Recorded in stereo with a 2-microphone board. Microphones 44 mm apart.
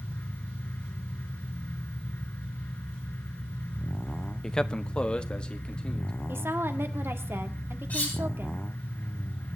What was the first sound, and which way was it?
A man speaking, 10° left (ahead or behind).